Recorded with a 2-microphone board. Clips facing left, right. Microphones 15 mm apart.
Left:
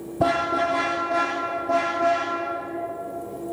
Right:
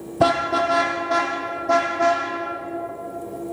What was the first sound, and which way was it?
A car horn, 45° right (ahead or behind).